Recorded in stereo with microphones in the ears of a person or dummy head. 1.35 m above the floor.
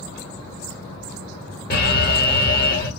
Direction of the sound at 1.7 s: 45° left (ahead or behind).